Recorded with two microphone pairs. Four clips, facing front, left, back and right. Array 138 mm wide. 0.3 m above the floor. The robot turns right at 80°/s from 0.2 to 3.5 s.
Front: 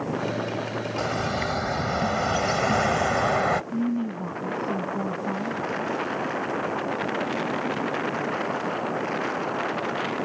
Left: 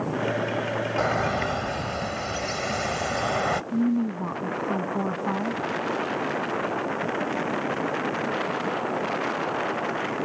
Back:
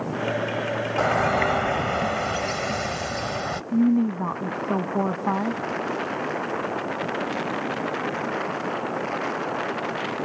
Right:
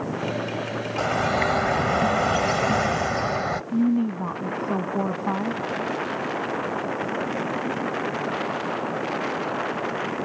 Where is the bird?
Straight behind; by 3.6 s 20° left.